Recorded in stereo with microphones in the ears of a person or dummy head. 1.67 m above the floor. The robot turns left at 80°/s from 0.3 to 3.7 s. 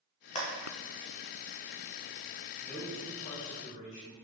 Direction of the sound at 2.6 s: 160° right.